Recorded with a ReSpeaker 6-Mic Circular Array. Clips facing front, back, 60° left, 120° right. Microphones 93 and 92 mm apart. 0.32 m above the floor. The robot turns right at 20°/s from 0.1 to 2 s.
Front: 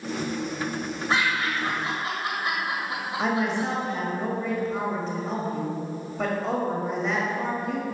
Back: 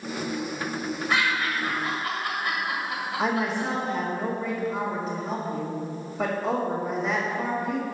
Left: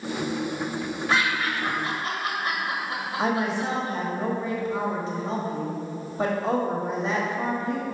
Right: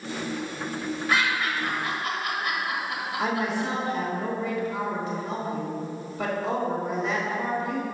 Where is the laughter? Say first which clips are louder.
Front 1 dB, left 1 dB; 25° left, 1.5 m; by 3.7 s 40° left, 1.5 m.